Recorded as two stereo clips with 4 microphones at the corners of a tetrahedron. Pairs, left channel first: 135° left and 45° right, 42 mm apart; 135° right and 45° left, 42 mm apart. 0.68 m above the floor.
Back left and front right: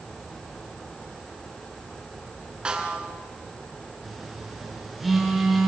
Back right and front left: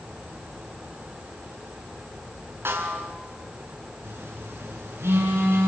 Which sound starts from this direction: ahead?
A snare drum, at 2.6 s.